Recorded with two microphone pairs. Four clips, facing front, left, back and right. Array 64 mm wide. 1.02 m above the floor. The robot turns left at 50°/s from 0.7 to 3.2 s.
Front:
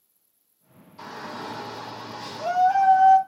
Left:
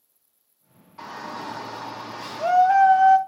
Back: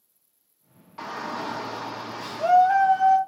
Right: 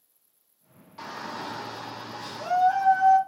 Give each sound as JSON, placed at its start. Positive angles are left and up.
{"t": 1.0, "sound": "a shout", "azimuth_deg": -175, "distance_m": 2.0}